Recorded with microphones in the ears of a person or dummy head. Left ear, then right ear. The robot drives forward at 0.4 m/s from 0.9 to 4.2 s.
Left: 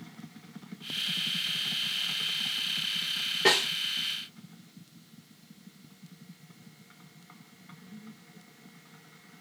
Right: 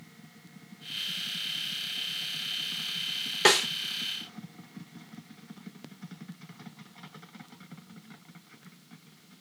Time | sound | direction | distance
3.5 | a snare drum | 45° right (ahead or behind) | 0.8 m